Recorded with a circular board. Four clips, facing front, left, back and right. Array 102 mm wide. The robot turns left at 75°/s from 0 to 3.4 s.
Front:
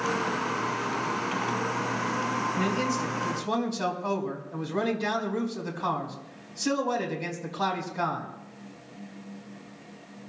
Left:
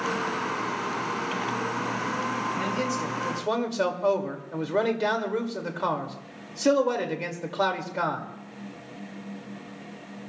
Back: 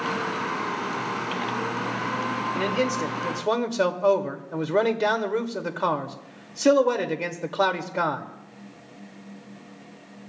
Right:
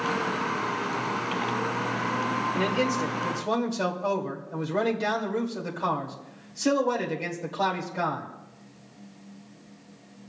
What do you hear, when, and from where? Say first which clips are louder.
2.5 s a man speaking: right 2 dB, back 3 dB; 135° right, 2 m; by 8.2 s 160° left, 2 m